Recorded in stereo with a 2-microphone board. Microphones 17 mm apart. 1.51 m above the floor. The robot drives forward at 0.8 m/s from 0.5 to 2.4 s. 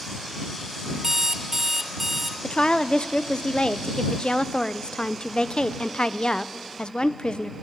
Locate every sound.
1.0 s an alarm clock: 30° right (ahead or behind), 0.7 m; by 2.3 s 15° right (ahead or behind), 1.2 m
2.4 s a woman speaking: 70° left (ahead or behind), 0.6 m